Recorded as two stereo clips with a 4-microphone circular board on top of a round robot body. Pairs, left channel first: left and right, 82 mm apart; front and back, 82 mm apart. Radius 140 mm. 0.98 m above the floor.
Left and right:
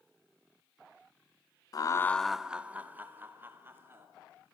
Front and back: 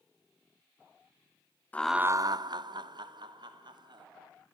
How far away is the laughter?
About 0.6 m.